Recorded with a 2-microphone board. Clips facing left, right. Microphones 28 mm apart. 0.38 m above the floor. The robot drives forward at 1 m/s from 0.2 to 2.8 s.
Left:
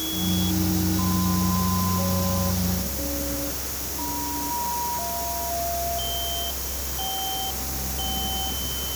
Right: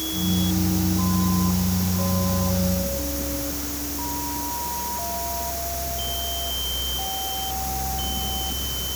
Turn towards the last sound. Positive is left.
No sound to turn to.